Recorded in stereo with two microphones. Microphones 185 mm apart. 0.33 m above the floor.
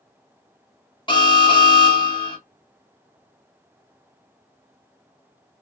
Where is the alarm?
30° left (ahead or behind), 0.9 m.